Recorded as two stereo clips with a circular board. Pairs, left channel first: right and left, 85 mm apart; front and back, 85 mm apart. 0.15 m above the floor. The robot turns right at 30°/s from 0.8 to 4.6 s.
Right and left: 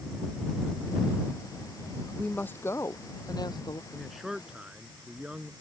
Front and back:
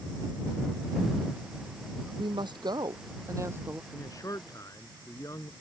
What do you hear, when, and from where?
2.1 s a woman speaking: 165° right; by 3.8 s 115° right
3.9 s a man speaking: 5° right; by 5.5 s 15° left